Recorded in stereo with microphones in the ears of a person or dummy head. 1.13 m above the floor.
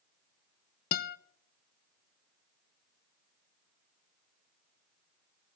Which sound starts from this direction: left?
A guitar, at 0.9 s.